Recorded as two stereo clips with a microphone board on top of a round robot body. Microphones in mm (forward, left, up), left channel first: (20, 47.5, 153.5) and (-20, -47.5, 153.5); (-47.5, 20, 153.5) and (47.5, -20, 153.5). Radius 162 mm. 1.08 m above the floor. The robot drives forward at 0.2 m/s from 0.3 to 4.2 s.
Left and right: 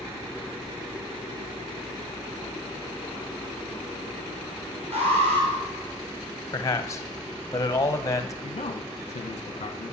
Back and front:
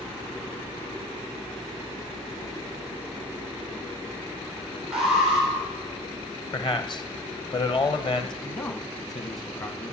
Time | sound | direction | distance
4.9 | an alarm | 105° right | 3.5 m
6.5 | a man speaking | 125° left | 1.2 m
8.4 | a man speaking | 100° left | 0.8 m